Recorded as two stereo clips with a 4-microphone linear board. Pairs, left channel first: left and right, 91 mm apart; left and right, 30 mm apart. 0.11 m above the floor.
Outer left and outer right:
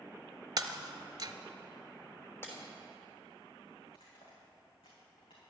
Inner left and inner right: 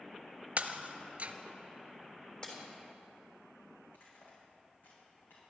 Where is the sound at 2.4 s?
25° left (ahead or behind), 3.5 m.